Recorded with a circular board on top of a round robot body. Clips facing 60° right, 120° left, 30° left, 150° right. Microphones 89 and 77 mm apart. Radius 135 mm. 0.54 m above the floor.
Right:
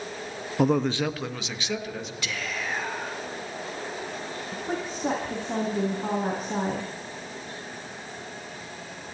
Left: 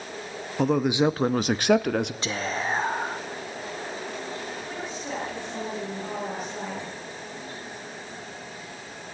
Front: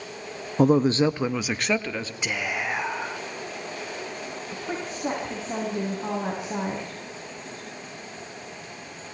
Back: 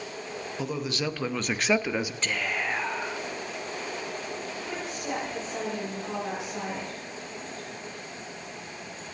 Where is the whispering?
100° left, 0.8 m.